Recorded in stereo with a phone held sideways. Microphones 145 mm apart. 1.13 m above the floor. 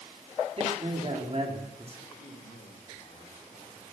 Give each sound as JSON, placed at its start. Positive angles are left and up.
{"t": 0.6, "sound": "a man speaking", "side_deg": -45, "distance_m": 2.5}
{"t": 2.1, "sound": "a man speaking", "side_deg": 80, "distance_m": 8.0}